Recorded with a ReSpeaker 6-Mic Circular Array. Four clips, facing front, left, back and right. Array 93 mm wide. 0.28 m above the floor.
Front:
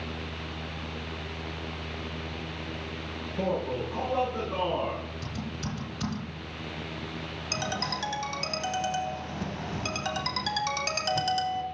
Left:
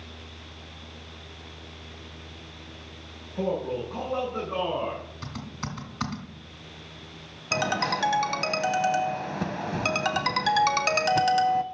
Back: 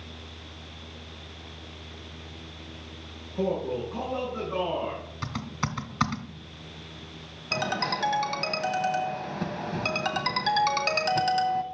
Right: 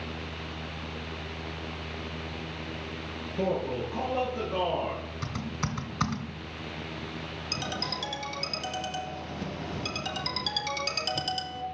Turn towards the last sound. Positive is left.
turn(degrees=110)